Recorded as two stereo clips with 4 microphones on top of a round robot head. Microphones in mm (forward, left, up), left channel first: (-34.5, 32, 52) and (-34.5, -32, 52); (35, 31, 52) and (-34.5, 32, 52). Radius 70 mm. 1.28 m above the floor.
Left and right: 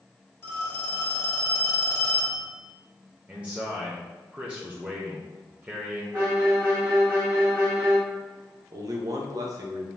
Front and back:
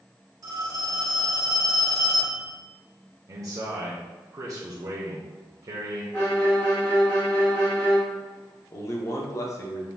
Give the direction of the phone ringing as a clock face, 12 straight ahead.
7 o'clock.